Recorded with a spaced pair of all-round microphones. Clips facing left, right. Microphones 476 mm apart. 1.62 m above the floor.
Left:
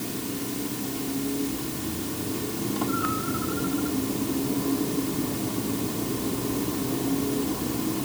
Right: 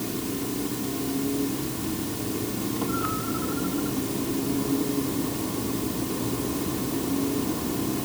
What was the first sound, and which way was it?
Only background noise.